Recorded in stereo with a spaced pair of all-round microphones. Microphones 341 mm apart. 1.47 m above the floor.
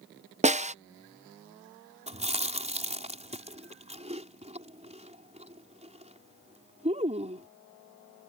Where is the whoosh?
No whoosh in this recording.